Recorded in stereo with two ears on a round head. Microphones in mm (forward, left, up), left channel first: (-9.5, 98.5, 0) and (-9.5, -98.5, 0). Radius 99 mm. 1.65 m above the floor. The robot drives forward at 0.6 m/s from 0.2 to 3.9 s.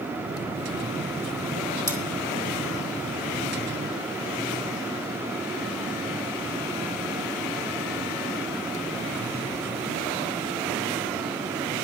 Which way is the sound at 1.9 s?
10° left (ahead or behind).